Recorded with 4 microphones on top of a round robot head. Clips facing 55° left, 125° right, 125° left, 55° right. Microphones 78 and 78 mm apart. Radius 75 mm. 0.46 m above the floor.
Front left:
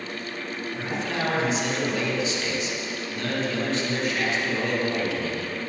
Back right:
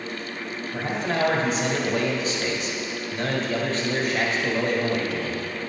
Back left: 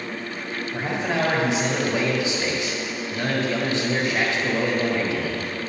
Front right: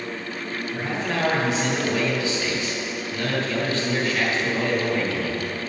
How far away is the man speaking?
About 2.5 m.